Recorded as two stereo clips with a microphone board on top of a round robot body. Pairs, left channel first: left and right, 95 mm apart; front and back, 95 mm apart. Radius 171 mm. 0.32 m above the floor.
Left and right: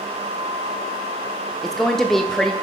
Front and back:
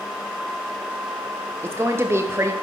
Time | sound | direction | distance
1.6 | a woman speaking | 170° left | 0.9 m